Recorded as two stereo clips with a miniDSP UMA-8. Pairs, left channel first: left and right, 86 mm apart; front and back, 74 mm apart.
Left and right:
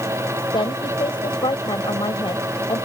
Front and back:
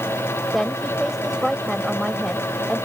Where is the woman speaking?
90° left.